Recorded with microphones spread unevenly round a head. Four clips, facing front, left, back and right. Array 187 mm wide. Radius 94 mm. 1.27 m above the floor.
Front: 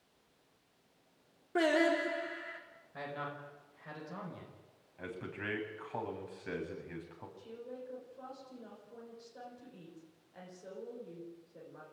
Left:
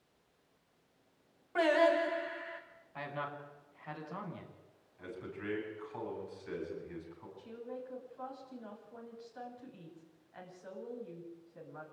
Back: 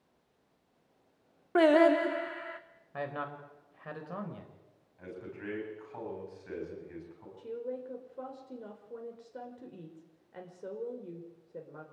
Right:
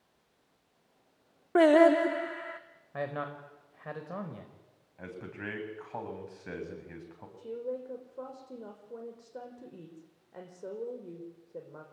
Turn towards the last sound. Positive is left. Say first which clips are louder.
# right 9 dB, back 9 dB
turn(degrees=-130)